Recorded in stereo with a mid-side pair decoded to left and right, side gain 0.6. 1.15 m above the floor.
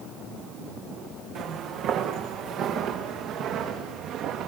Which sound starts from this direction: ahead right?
Footsteps, at 1.4 s.